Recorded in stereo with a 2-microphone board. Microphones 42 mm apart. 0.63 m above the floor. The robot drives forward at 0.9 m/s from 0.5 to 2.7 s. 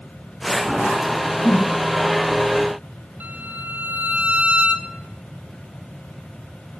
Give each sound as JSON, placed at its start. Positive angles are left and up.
{"t": 1.4, "sound": "a whoosh", "side_deg": 55, "distance_m": 3.5}
{"t": 3.2, "sound": "a violin", "side_deg": -45, "distance_m": 1.3}